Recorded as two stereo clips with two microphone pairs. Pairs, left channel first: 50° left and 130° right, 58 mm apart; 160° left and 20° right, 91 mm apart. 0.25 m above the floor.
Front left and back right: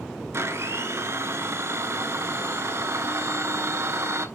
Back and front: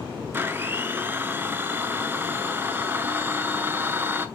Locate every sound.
0.3 s a blender: 90° right, 0.8 m